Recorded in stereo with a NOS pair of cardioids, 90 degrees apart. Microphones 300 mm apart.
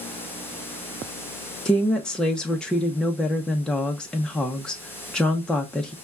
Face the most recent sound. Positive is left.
turn(degrees=5)